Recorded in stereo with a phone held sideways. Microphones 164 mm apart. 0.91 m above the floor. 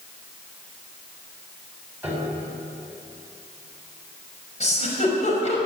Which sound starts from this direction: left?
A giggle, at 4.6 s.